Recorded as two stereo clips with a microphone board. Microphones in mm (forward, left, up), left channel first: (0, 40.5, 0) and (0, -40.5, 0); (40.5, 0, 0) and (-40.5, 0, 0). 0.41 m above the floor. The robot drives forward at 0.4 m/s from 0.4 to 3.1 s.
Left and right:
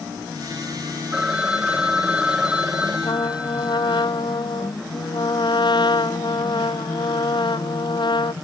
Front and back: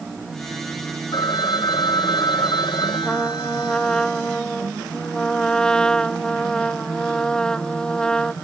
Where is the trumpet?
80° left.